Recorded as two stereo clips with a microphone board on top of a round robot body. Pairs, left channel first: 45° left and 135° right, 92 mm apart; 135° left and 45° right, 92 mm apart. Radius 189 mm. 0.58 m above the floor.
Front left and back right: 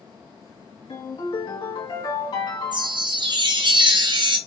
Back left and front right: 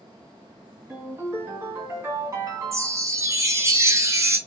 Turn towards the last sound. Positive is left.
turn(degrees=-105)